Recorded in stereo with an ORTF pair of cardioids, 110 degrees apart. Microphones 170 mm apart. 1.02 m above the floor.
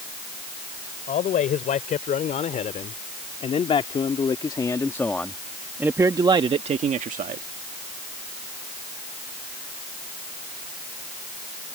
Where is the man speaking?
55° left; by 7.5 s 55° right.